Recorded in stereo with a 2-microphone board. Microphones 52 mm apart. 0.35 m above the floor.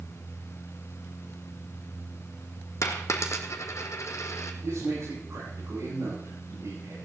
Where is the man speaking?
65° right (ahead or behind), 9.5 m.